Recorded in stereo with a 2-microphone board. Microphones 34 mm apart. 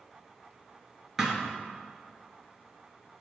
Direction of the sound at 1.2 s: 15° right (ahead or behind).